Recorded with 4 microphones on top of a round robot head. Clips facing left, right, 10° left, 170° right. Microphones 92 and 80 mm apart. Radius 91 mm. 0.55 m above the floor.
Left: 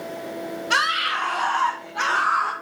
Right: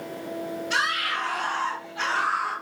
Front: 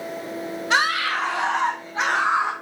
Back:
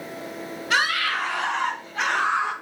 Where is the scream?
70° left, 4.5 m; by 2.5 s 75° left, 3 m.